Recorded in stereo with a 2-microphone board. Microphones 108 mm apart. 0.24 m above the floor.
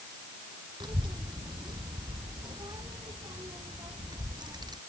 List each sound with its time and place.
0.8 s a child speaking: 45° right (ahead or behind); by 4.8 s 40° right (ahead or behind)